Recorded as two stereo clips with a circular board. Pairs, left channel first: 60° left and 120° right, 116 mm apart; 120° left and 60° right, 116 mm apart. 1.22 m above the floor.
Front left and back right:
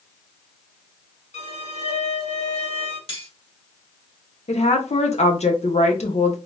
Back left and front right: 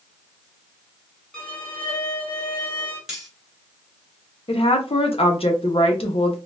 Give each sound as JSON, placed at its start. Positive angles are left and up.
{"t": 1.3, "sound": "a violin", "azimuth_deg": 35, "distance_m": 2.0}
{"t": 3.1, "sound": "cutlery clinking", "azimuth_deg": 25, "distance_m": 1.8}
{"t": 4.5, "sound": "a woman speaking", "azimuth_deg": 85, "distance_m": 1.1}